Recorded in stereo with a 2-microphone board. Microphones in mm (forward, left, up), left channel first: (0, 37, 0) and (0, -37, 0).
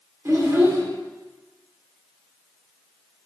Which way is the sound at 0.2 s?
40° right (ahead or behind).